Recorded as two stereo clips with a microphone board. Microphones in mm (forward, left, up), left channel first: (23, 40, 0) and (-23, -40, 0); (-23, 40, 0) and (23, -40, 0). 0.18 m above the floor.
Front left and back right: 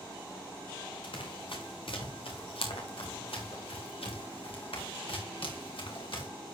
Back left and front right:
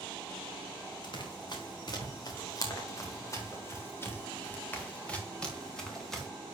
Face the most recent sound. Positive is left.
turn(degrees=35)